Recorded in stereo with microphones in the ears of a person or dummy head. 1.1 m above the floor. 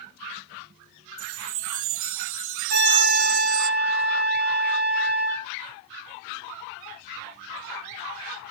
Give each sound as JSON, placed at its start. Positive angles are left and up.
{"t": 1.2, "sound": "a chime", "side_deg": -70, "distance_m": 0.5}
{"t": 2.7, "sound": "a trumpet", "side_deg": -50, "distance_m": 3.5}